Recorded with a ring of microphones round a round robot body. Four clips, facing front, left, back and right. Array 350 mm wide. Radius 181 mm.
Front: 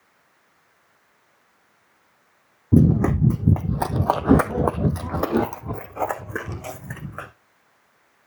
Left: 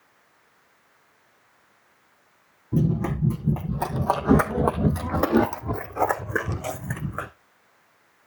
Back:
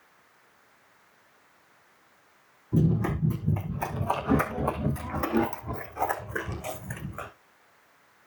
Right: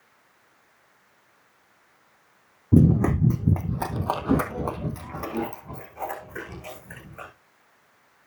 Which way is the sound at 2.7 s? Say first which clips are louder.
Right 6 dB, front 8 dB; 30° right.